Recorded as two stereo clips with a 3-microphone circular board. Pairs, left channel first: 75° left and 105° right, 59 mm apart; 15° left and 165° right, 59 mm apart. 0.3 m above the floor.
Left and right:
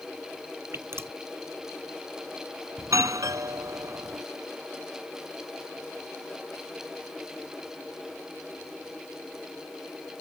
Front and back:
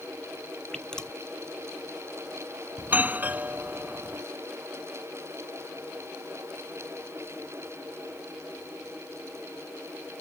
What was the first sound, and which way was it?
Dripping, 65° right.